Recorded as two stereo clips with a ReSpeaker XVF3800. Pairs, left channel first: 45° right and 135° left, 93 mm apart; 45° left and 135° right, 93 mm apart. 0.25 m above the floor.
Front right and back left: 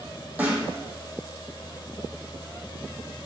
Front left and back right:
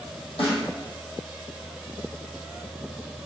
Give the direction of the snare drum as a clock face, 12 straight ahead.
10 o'clock.